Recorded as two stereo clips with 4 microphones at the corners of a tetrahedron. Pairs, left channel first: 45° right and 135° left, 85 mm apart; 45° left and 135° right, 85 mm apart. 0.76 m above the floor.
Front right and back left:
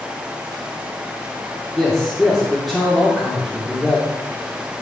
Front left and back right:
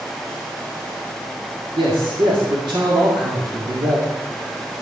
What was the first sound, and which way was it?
A man speaking, 130° right.